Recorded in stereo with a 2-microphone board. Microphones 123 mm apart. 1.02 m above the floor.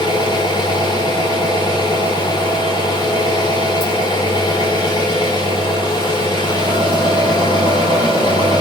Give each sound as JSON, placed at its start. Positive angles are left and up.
{"t": 0.0, "sound": "an engine running", "side_deg": 40, "distance_m": 5.0}